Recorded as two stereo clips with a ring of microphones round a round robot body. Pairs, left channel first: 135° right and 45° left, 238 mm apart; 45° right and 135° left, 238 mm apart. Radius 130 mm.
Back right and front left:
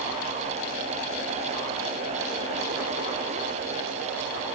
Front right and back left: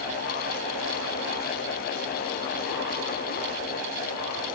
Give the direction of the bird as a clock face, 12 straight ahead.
I don't hear a bird.